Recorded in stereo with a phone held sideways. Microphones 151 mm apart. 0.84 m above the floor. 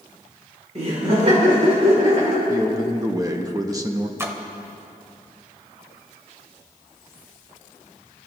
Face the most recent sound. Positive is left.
turn(degrees=-15)  # may be behind; listen again after turning